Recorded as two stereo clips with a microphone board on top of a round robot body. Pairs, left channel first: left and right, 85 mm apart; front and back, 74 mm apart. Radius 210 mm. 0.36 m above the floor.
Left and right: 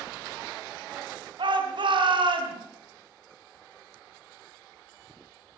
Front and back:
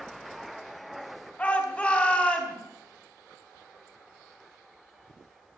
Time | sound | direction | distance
1.4 | a shout | 75° right | 4 m